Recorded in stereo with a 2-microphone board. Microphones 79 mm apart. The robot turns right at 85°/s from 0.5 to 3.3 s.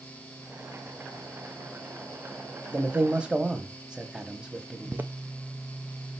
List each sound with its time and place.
2.7 s a man speaking: 20° right (ahead or behind), 1.0 m; by 5.1 s 10° right (ahead or behind), 1.0 m
4.9 s footsteps: 25° right (ahead or behind), 0.6 m